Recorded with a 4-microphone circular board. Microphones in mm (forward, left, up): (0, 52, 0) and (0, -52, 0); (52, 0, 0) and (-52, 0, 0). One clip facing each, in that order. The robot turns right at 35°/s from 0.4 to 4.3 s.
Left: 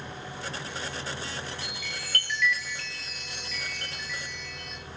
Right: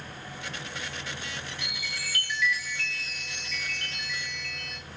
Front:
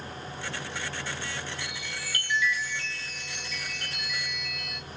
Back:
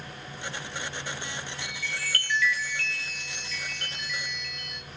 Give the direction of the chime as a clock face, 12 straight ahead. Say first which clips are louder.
Even, back 2 dB; 1 o'clock.